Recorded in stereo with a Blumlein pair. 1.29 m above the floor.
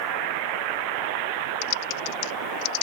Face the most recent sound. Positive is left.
turn(degrees=45)